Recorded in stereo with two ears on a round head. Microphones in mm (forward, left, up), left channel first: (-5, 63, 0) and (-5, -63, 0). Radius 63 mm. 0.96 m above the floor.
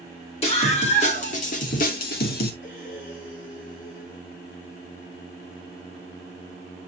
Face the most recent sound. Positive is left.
turn(degrees=65)  # may be behind; listen again after turning